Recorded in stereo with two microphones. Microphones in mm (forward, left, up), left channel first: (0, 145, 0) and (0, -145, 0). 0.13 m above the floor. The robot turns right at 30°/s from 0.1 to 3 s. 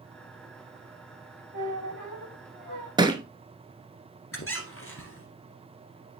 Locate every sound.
1.5 s a squeak: 75° left, 4.5 m; by 2.9 s 115° left, 4.5 m
3.0 s a thud: 15° right (ahead or behind), 0.9 m
4.3 s a squeak: 45° left (ahead or behind), 1.6 m